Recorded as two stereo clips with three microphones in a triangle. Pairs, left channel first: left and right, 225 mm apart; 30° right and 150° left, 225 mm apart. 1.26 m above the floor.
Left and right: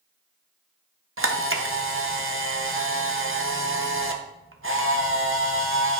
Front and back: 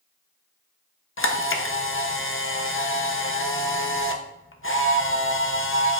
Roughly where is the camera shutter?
Ahead right.